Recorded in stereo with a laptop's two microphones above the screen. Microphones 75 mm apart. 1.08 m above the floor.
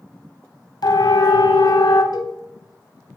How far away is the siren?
About 5.5 m.